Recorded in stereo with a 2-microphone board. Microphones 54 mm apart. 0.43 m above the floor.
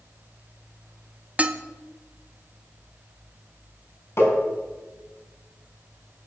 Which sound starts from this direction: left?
Tapping, at 4.2 s.